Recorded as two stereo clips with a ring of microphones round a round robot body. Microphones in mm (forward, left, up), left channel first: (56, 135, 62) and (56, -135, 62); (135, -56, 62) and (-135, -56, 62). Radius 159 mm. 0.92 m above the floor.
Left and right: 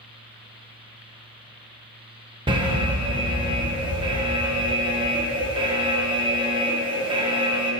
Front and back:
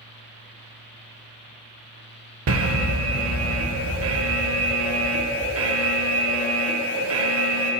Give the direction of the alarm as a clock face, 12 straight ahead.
5 o'clock.